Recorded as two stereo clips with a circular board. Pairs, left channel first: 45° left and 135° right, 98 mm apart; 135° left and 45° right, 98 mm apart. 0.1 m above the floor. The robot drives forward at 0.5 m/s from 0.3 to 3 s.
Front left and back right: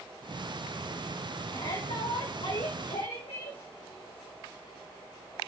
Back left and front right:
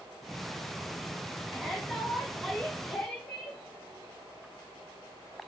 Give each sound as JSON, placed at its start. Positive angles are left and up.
{"t": 1.5, "sound": "a shout", "azimuth_deg": 40, "distance_m": 5.0}